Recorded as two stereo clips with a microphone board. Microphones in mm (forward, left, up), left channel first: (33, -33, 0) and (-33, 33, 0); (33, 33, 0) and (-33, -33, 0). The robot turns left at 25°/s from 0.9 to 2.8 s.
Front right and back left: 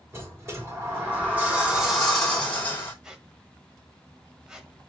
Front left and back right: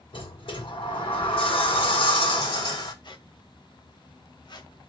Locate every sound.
0.1 s a sliding door: 70° left, 3 m; by 2.9 s 20° left, 3 m
3.0 s a squeak: 50° left, 1.3 m